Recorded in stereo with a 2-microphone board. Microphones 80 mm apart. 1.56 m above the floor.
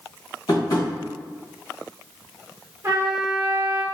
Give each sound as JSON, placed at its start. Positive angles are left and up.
{"t": 0.5, "sound": "tapping", "side_deg": 55, "distance_m": 1.9}
{"t": 2.8, "sound": "a trumpet", "side_deg": -30, "distance_m": 0.7}